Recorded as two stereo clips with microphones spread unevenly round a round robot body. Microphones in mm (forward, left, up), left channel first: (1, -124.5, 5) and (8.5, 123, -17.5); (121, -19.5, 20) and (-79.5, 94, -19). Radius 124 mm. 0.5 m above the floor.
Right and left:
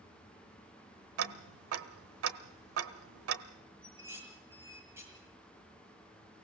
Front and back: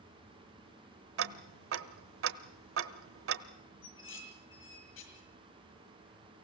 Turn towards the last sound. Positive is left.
turn(degrees=10)